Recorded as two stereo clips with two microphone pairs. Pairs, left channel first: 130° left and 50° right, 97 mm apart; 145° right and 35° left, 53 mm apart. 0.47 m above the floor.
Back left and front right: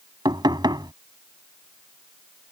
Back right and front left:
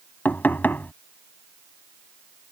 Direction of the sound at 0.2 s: 90° right.